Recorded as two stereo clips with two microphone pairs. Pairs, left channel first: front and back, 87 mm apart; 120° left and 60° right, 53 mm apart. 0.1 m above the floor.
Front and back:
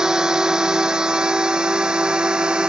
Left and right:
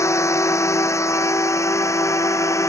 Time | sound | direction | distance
0.0 | a drone | 100° left | ?